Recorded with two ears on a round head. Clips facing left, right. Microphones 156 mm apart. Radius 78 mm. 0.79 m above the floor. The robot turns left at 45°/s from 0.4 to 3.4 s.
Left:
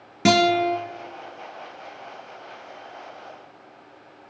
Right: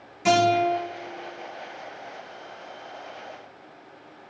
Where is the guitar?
75° left (ahead or behind), 3.5 m; by 0.8 s 60° left (ahead or behind), 3.5 m.